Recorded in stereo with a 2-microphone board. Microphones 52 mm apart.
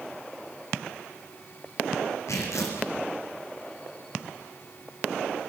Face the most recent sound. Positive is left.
turn(degrees=80)